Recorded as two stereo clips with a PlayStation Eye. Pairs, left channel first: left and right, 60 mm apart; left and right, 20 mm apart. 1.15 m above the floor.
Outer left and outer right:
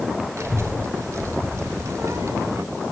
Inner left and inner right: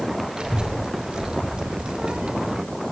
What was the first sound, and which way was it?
A child speaking, 50° right (ahead or behind).